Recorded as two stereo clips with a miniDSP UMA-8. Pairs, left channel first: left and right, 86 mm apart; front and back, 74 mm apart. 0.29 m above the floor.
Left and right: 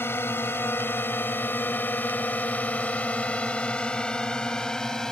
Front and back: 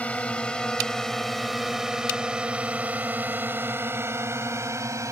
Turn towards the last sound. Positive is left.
turn(degrees=170)